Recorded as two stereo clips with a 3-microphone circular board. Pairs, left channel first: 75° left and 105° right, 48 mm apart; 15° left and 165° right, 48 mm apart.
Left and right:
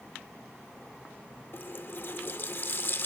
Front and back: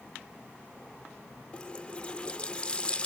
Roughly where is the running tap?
Left.